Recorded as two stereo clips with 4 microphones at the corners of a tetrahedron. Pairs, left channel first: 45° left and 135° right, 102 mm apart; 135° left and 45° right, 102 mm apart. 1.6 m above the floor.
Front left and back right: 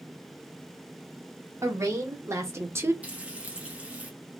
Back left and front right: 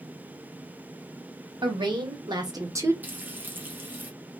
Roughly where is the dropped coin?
I don't hear a dropped coin.